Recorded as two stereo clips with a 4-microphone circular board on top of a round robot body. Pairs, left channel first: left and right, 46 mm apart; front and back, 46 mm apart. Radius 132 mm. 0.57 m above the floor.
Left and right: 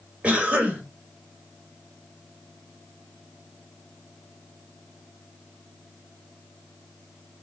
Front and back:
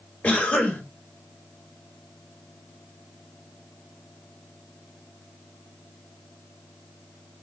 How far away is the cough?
About 1.6 m.